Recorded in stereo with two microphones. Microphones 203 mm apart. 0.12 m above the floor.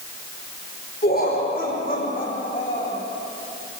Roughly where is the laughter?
Left.